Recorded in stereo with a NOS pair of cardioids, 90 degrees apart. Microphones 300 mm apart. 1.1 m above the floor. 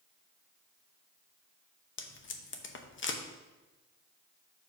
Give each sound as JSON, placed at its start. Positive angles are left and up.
{"t": 2.0, "sound": "tape being pulled", "azimuth_deg": 40, "distance_m": 0.9}